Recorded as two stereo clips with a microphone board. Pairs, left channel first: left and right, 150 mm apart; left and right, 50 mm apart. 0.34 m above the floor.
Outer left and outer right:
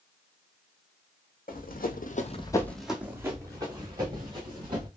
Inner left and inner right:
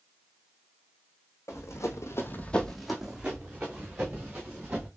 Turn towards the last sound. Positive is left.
turn(degrees=-35)  # may be behind; listen again after turning